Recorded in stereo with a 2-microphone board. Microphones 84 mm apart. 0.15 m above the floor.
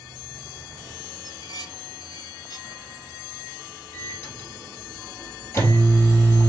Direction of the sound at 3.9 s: 30° left (ahead or behind).